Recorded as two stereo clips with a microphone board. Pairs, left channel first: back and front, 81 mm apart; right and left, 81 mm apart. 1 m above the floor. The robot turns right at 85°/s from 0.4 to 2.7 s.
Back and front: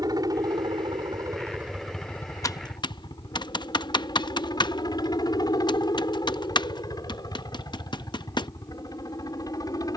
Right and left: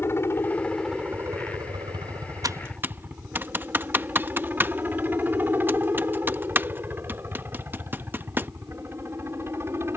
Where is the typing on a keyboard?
130° left; by 8.5 s 155° left.